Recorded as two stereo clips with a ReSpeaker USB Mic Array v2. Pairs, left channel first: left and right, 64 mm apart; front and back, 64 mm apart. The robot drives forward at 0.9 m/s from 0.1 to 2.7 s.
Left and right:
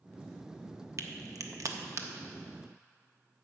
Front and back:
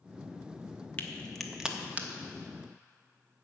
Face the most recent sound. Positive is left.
turn(degrees=-145)